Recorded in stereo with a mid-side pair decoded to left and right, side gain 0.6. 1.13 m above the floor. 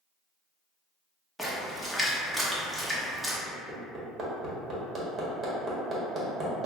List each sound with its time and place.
1.4 s a splash: 5° right, 1.0 m
3.5 s hammering: 35° right, 1.2 m